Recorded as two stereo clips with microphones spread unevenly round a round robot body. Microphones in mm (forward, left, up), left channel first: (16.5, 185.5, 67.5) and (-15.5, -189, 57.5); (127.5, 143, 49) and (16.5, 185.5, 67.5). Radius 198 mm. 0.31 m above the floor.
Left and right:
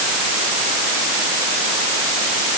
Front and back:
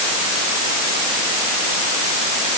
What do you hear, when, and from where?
Only background noise.